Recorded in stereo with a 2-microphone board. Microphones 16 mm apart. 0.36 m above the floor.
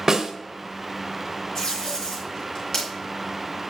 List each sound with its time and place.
0.1 s a snare drum: 45° right (ahead or behind), 1.1 m
1.6 s tape being pulled: 40° left (ahead or behind), 5 m